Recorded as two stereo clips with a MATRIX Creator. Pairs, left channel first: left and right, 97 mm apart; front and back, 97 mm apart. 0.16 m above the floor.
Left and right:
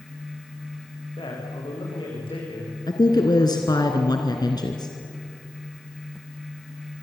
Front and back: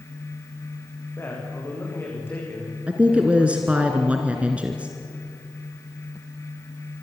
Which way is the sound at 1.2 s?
65° left.